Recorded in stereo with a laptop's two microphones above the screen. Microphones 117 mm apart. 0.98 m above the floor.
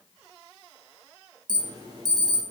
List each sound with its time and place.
1.5 s an alarm: 35° right (ahead or behind), 1.7 m